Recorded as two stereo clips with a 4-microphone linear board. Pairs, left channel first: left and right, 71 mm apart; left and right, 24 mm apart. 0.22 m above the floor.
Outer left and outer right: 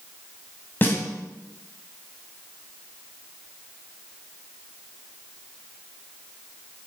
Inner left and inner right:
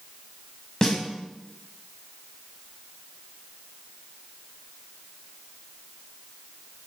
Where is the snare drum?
30° left (ahead or behind), 1.7 m.